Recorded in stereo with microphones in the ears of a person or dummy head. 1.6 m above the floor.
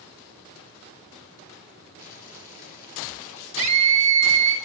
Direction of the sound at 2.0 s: 45° left (ahead or behind).